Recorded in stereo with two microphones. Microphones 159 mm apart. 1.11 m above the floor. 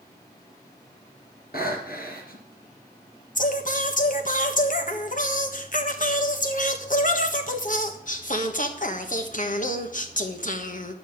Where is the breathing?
70° left (ahead or behind), 3.5 m.